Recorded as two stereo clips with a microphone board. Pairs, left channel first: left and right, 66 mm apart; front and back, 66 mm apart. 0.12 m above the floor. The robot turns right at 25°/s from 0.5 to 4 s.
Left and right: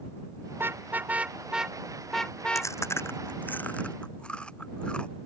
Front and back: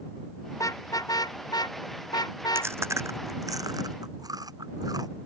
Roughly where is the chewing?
Behind left.